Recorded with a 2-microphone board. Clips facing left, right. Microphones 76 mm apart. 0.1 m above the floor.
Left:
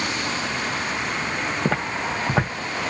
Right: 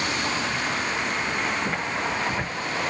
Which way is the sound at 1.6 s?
80° left.